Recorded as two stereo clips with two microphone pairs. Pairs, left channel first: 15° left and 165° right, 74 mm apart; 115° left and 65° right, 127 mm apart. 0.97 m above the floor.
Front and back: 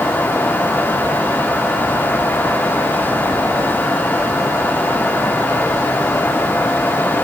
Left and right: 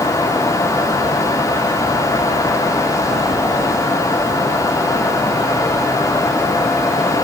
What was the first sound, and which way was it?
Only background noise.